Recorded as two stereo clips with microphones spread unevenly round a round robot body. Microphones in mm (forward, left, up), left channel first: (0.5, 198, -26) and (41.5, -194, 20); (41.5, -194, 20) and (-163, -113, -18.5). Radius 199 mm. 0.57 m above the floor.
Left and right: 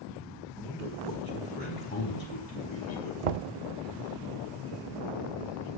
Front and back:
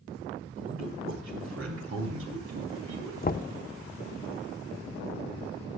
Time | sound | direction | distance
0.6 | a man speaking | straight behind | 5 m
3.2 | knocking | 80° right | 0.7 m